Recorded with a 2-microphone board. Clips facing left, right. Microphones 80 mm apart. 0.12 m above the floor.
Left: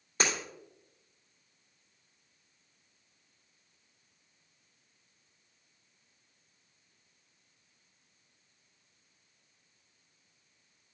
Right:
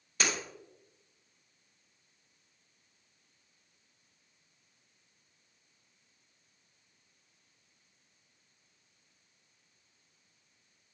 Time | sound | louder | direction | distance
0.2 | breaking glass | left 2 dB | 35° left (ahead or behind) | 3 m